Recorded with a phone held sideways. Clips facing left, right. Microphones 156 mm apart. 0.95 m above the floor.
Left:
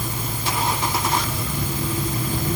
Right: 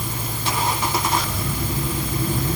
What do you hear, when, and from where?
Only background noise.